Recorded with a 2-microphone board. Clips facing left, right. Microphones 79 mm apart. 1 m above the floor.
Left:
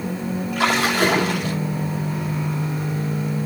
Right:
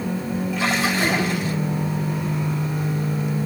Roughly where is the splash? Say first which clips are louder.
Left 3 dB; left.